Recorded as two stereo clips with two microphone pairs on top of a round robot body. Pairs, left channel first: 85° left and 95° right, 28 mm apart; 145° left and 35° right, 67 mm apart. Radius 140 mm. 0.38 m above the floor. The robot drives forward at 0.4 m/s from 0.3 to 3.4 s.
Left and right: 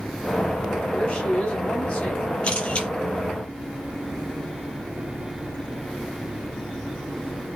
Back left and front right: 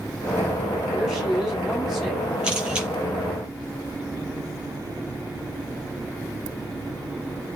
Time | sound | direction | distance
0.9 | a woman speaking | 45° left | 4.5 m
2.4 | a camera shutter | 40° left | 4 m